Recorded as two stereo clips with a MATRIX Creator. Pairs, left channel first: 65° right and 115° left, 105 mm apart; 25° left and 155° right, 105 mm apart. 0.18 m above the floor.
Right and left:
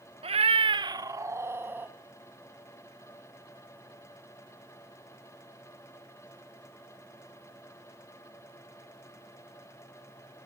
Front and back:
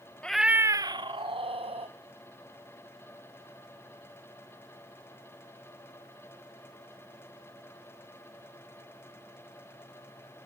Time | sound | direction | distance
0.2 | a cat meowing | 100° left | 0.5 m